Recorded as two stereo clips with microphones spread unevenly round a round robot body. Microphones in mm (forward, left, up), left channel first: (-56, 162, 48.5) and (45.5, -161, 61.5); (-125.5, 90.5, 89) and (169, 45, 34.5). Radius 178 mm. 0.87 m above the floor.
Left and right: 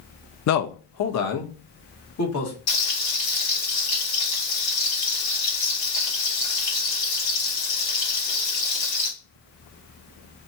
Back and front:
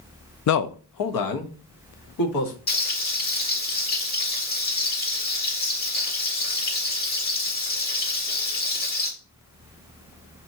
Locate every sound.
0.5 s a man speaking: 135° left, 0.5 m; by 2.5 s 155° left, 1.8 m
2.7 s frying: 125° left, 3.5 m